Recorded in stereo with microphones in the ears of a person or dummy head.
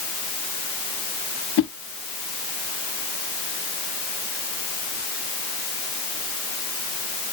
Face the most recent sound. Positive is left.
turn(degrees=65)  # may be behind; listen again after turning